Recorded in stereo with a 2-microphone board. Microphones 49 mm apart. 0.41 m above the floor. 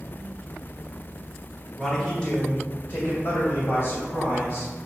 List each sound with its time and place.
1.8 s a man speaking: centre (ahead or behind), 1.4 m; by 4.7 s 50° left (ahead or behind), 3.5 m